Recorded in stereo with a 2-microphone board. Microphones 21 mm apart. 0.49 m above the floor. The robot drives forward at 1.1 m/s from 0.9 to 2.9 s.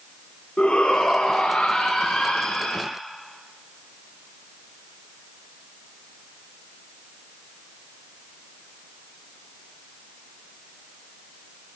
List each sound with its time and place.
0.6 s a shout: 75° left (ahead or behind), 5.5 m; by 2.8 s 60° left (ahead or behind), 6 m